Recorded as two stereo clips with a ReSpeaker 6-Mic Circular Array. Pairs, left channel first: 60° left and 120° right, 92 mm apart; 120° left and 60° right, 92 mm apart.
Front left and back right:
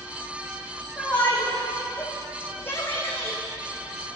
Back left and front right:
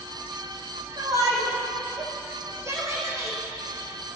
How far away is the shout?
About 7 m.